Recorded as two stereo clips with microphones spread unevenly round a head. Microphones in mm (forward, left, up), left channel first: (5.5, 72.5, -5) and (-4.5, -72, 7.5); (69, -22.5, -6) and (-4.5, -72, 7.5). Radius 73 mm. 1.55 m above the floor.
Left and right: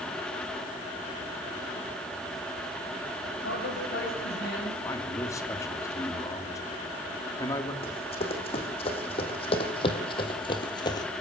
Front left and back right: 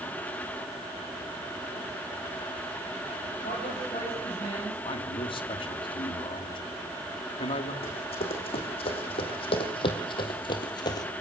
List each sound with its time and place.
3.4 s a man speaking: 75° left, 8 m; by 4.8 s 70° left, 8 m
4.8 s a man speaking: 15° left, 3 m
7.8 s running footsteps: 35° left, 4.5 m